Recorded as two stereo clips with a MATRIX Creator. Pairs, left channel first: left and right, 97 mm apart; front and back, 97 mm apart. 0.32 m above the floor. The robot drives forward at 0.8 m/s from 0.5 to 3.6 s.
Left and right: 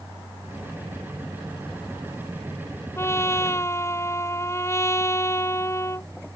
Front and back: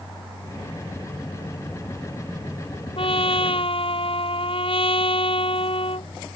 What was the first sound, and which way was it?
A trumpet, 25° left.